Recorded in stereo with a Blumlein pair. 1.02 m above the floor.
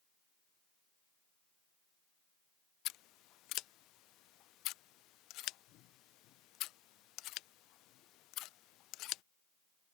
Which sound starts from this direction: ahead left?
Scissors, at 2.9 s.